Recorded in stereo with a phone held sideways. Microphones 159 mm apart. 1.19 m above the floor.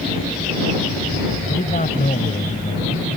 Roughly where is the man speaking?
Left.